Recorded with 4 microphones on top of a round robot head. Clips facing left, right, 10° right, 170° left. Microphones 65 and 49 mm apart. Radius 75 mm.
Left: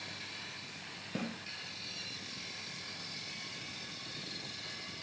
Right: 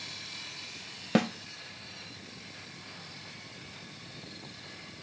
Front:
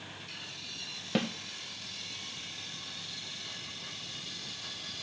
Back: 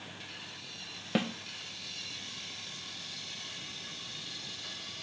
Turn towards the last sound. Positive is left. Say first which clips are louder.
# right 13 dB, even
turn(degrees=-110)